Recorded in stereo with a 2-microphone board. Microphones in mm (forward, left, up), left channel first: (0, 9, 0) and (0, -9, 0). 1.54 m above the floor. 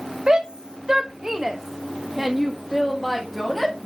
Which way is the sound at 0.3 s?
60° right (ahead or behind).